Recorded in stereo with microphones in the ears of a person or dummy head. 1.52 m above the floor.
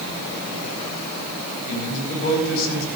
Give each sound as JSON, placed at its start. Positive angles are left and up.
{"t": 1.7, "sound": "a man speaking", "side_deg": 75, "distance_m": 4.0}